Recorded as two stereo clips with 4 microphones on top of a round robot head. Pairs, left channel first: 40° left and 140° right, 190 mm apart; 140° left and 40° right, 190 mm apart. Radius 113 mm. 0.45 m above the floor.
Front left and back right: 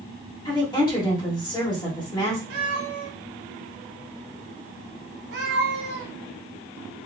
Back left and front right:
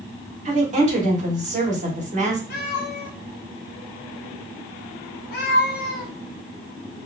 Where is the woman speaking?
15° right, 1.5 m.